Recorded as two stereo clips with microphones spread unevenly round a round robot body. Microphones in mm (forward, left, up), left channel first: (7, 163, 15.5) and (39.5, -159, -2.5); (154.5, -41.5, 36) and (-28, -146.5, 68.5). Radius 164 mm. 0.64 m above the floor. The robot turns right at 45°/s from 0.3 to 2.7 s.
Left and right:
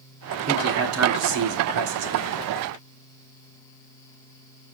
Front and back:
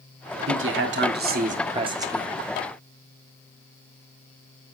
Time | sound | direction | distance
0.5 | a man speaking | 145° right | 1.6 m